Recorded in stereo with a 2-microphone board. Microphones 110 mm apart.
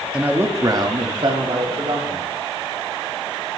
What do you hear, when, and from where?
0.1 s a man speaking: 10° right (ahead or behind), 0.7 m; by 2.3 s 55° right (ahead or behind), 1.4 m